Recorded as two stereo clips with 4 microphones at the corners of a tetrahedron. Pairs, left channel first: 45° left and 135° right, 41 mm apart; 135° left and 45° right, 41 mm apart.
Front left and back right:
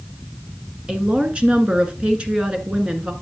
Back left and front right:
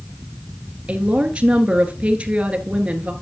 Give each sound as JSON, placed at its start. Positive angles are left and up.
{"t": 0.9, "sound": "a woman speaking", "azimuth_deg": -85, "distance_m": 1.3}